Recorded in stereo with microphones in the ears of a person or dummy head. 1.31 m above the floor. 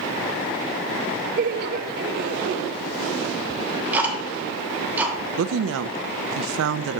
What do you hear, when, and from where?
1.4 s laughter: 50° right (ahead or behind), 0.7 m
3.5 s ticking: 5° right (ahead or behind), 1.1 m
5.4 s a woman speaking: 80° right, 0.6 m